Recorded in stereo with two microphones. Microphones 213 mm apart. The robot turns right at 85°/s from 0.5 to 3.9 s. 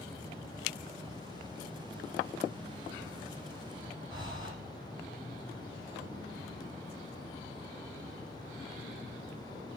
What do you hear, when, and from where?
4.1 s breathing: 20° right (ahead or behind), 5 m